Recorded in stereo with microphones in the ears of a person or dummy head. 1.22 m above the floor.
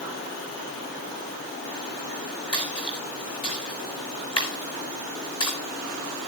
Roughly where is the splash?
Left.